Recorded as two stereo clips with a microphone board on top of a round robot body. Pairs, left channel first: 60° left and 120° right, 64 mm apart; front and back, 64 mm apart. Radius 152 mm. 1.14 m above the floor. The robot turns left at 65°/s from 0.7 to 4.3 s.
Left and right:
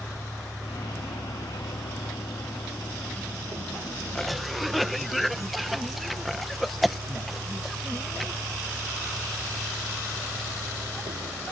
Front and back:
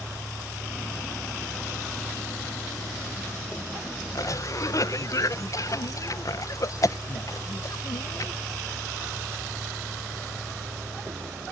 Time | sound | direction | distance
0.0 | a vehicle | 110° left | ?
4.2 | a cough | 20° right | ?